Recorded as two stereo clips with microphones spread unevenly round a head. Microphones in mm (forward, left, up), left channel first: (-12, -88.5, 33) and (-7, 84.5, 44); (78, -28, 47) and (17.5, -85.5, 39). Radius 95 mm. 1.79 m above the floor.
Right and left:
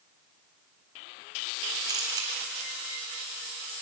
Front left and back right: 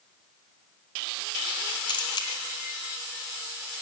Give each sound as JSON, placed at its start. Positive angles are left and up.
{"t": 1.9, "sound": "a camera shutter", "azimuth_deg": 20, "distance_m": 3.0}